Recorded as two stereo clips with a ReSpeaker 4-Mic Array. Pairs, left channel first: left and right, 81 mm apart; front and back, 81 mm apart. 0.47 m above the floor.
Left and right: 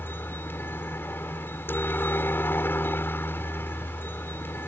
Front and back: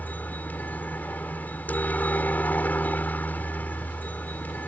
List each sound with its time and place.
0.0 s a helicopter: 50° left